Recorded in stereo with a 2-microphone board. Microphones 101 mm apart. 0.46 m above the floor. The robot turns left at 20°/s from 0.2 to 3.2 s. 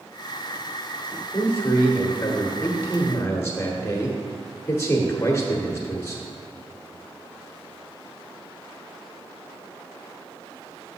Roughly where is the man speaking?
Left.